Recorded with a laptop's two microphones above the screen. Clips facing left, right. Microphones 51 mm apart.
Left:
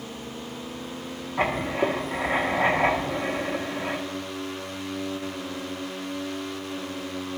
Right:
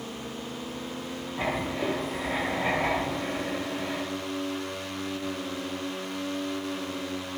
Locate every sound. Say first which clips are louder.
1.4 s writing: left 5 dB; 60° left (ahead or behind), 1.0 m